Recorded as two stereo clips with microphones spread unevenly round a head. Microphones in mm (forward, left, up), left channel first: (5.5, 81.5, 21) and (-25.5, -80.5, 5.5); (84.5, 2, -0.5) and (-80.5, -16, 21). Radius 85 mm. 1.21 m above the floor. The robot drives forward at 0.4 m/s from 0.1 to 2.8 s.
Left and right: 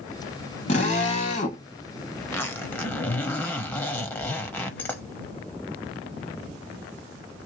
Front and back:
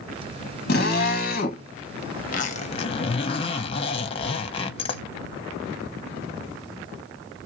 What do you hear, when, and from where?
0.7 s a drill: 25° left, 1.6 m; by 1.6 s 35° left, 1.3 m
2.2 s a zipper: 15° left, 0.7 m; by 5.0 s 30° left, 0.6 m